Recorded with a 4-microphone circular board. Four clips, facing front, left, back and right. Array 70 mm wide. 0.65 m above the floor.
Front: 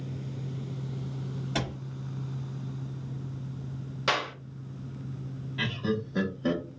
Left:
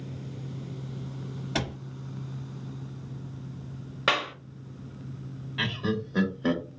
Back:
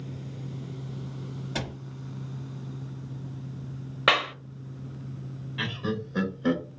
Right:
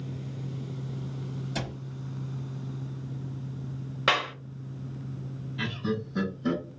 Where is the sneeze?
No sneeze in this recording.